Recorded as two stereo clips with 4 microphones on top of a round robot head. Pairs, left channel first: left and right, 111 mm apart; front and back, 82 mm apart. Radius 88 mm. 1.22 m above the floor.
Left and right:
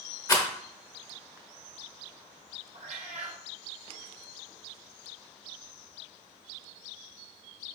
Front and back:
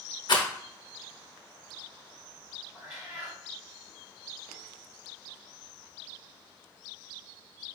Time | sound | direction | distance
0.3 | a rattle | 30° left | 1.0 m
2.7 | a cat meowing | 105° right | 0.6 m